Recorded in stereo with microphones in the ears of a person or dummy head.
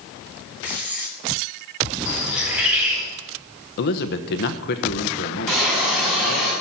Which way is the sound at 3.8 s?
50° left (ahead or behind).